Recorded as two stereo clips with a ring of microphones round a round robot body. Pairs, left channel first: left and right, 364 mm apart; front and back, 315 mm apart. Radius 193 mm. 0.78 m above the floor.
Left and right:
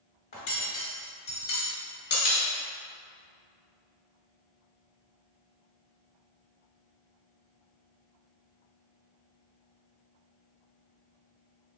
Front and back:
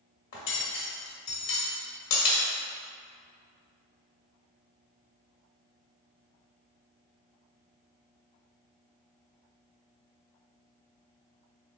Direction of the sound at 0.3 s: 25° left.